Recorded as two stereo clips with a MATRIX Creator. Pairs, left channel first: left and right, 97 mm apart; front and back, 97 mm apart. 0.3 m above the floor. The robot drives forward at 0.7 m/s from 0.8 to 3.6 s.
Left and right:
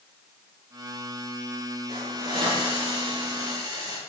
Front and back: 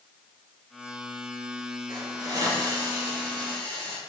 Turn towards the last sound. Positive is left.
turn(degrees=-140)